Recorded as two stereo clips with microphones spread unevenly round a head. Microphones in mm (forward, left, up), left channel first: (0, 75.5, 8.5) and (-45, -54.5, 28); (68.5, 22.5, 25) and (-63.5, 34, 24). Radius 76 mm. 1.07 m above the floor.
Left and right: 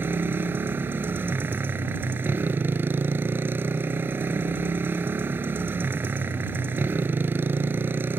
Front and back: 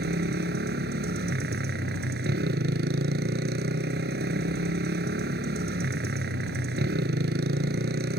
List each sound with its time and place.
0.0 s a motorcycle: 175° left